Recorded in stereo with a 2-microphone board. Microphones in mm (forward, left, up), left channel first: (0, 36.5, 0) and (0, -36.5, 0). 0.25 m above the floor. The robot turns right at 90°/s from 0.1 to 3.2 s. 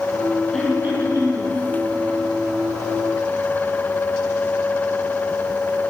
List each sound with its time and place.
0.5 s throat clearing: 175° left, 2.5 m; by 1.5 s 95° right, 2.5 m